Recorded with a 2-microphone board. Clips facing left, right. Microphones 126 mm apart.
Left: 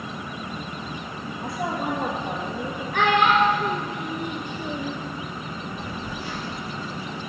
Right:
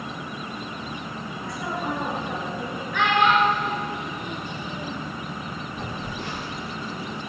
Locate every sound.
1.4 s a woman speaking: 55° left (ahead or behind), 4 m
2.9 s a child speaking: 50° left (ahead or behind), 1.1 m
5.8 s a phone buzzing: 65° right (ahead or behind), 3.5 m